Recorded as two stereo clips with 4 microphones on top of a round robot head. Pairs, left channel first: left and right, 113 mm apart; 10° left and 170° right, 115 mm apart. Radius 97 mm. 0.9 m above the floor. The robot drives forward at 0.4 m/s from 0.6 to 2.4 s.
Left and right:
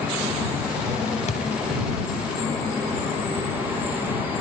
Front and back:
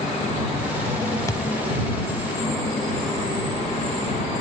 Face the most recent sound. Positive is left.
turn(degrees=95)